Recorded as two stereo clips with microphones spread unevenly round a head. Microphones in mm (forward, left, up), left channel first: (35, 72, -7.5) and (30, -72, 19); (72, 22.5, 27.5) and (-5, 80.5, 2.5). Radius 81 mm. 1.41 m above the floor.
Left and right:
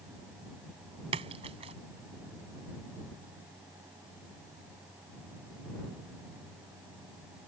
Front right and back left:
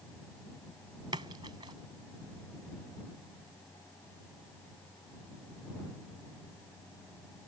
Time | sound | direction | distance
1.1 | a splash | 150° right | ?